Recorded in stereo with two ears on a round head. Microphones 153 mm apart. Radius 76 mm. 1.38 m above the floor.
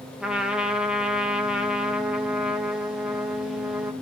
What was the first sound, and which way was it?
A trumpet, 5° right (ahead or behind).